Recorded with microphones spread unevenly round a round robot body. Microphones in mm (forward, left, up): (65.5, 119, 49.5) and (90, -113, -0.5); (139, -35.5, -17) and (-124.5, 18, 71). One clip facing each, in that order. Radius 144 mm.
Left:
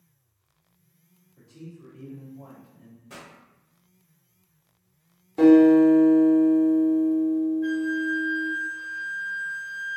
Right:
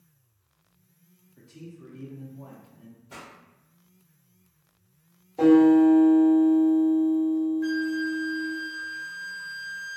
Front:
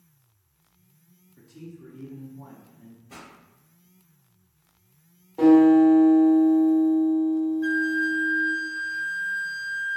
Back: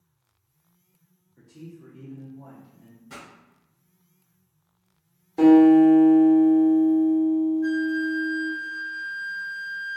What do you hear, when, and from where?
1.4 s a man speaking: 50° right, 0.7 m
3.1 s a pop: 105° left, 2.0 m
5.4 s a guitar: 115° left, 1.2 m
7.6 s a flute: 55° right, 0.7 m